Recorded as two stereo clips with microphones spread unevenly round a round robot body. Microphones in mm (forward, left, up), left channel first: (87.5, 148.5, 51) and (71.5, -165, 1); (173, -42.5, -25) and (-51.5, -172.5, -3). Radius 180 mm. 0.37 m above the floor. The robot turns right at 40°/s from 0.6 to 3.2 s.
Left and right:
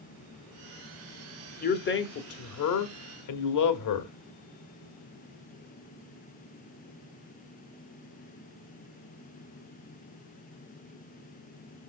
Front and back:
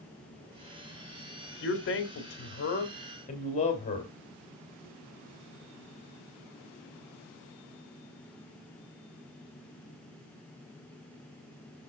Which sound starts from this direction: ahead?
A man speaking, at 1.6 s.